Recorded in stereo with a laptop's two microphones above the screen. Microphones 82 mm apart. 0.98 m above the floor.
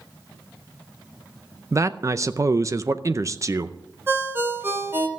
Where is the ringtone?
25° right (ahead or behind), 3 m.